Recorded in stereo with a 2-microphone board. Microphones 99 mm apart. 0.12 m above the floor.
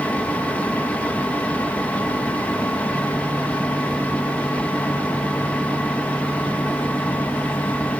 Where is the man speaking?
No man speaking in this recording.